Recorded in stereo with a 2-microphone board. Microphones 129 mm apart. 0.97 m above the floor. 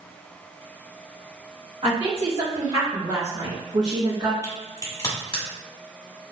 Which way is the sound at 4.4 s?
35° left (ahead or behind).